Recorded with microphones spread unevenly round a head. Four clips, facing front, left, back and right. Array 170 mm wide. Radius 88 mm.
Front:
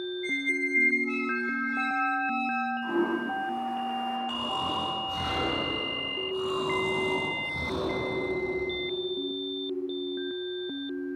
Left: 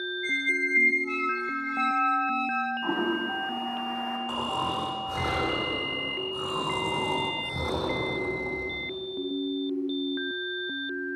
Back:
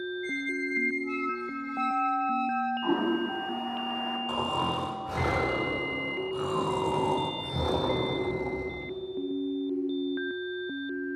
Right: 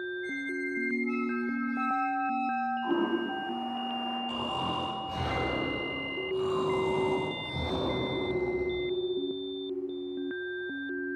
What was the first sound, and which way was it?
A squeak, 80° left.